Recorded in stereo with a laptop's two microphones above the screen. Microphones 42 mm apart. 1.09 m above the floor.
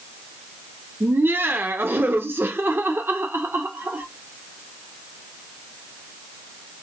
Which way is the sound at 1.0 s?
65° right (ahead or behind).